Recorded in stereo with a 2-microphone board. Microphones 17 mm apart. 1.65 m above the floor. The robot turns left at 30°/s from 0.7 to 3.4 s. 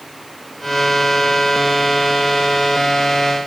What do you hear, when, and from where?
Only background noise.